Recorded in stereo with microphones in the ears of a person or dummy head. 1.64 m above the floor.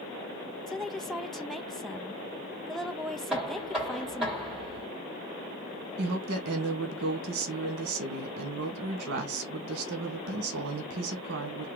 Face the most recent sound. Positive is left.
turn(degrees=-70)  # may be behind; listen again after turning